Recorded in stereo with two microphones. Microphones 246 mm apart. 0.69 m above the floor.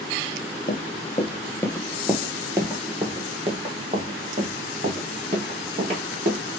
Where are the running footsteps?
35° left (ahead or behind), 0.8 m; by 6.4 s 30° right (ahead or behind), 3 m.